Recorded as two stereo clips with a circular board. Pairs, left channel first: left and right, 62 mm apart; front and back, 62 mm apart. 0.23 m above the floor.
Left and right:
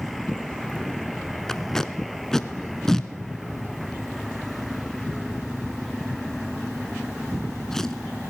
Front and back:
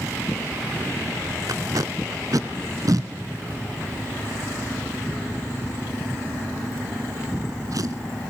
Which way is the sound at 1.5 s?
170° left.